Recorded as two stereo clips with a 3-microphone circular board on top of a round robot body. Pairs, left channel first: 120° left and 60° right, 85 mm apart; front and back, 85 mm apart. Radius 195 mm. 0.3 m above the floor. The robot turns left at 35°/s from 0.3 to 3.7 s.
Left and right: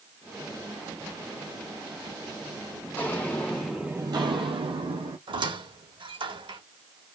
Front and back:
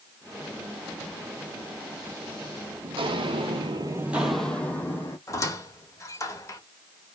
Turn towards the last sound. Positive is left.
turn(degrees=-50)